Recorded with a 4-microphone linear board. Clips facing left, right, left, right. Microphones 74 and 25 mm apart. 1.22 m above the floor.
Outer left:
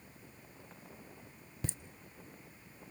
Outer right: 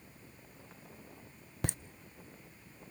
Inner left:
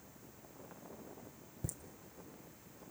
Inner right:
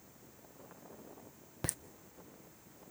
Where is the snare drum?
I don't hear a snare drum.